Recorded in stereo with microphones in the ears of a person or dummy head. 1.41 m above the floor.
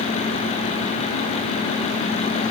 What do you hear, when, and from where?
Only background noise.